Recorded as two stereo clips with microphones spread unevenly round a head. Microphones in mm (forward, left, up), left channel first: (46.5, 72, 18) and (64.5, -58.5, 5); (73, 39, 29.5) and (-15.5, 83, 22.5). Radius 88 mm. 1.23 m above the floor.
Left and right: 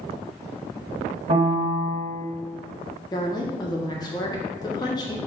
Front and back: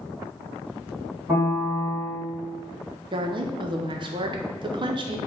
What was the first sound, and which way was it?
A piano, 130° right.